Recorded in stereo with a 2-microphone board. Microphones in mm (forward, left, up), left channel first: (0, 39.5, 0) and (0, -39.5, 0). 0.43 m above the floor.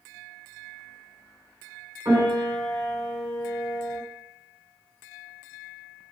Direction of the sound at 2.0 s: 35° right (ahead or behind).